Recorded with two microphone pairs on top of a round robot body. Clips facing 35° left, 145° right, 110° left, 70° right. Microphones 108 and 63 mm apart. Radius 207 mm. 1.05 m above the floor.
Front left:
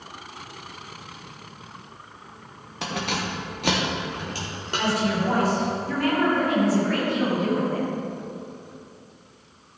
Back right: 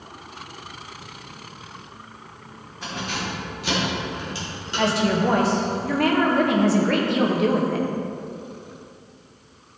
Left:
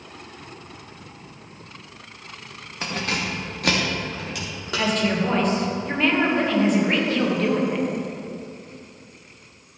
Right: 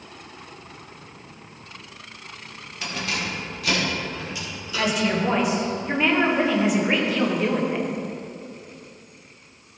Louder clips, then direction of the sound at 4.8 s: Back right 3 dB, even; 155° right.